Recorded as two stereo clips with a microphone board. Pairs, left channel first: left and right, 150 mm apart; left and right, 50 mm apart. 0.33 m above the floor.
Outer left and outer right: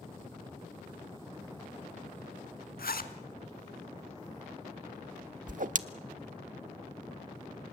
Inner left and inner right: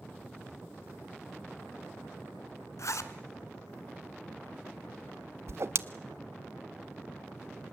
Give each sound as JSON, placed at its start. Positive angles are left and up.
{"t": 2.8, "sound": "a zipper", "side_deg": 75, "distance_m": 1.0}
{"t": 5.5, "sound": "a whoosh", "side_deg": -60, "distance_m": 0.5}